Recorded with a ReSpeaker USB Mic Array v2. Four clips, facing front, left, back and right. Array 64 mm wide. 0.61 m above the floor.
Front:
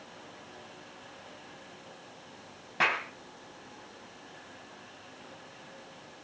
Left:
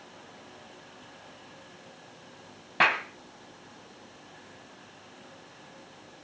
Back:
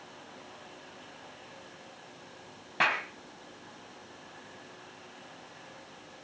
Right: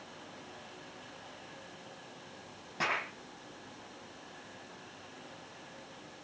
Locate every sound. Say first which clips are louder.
2.8 s a clap: left 9 dB, even; 100° left, 3 m